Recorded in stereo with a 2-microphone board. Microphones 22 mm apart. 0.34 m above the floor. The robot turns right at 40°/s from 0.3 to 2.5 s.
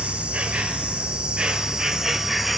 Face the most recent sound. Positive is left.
turn(degrees=-5)